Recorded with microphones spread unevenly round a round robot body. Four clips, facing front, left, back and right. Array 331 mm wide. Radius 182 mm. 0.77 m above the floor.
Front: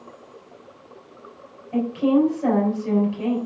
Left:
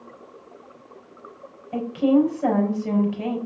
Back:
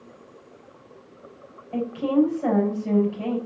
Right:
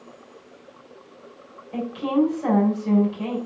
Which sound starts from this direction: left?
A woman speaking, at 1.7 s.